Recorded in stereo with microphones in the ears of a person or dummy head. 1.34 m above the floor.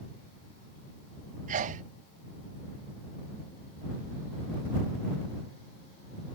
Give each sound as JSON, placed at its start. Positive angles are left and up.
{"t": 1.5, "sound": "a sneeze", "side_deg": -40}